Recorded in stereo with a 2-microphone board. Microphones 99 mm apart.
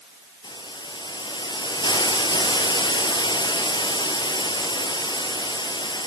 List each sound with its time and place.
0.4 s a hiss: 45° left (ahead or behind), 3 m